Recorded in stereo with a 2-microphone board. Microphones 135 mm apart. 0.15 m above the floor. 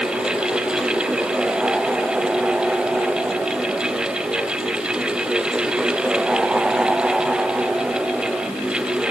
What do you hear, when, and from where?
Only background noise.